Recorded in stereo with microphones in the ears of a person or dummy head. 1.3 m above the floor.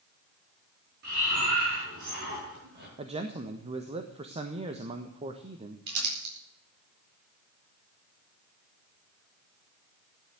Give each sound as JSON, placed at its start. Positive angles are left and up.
{"t": 1.0, "sound": "breathing", "side_deg": -60, "distance_m": 6.5}
{"t": 3.0, "sound": "a man speaking", "side_deg": -30, "distance_m": 1.3}
{"t": 5.9, "sound": "crumpling", "side_deg": -65, "distance_m": 9.5}